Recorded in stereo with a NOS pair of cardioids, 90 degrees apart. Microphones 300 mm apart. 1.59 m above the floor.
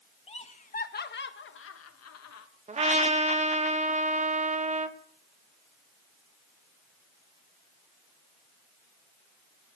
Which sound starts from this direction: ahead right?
A trumpet, at 2.7 s.